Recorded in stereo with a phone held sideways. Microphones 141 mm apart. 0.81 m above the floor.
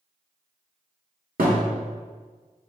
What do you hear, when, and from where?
1.4 s a thud: 80° right, 1.1 m